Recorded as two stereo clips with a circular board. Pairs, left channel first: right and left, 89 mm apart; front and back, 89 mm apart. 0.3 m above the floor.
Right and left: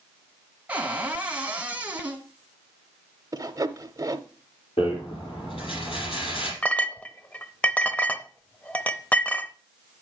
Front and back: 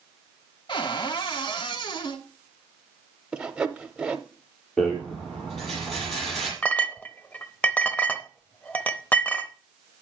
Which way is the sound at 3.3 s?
105° left.